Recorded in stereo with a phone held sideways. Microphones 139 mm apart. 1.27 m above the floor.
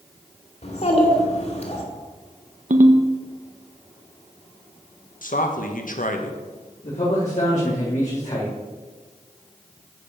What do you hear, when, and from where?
0.6 s a child speaking: 50° left (ahead or behind), 2 m
2.7 s a ringtone: 65° right (ahead or behind), 0.8 m
5.2 s a man speaking: 75° left (ahead or behind), 1.2 m
6.8 s a man speaking: 60° left (ahead or behind), 3 m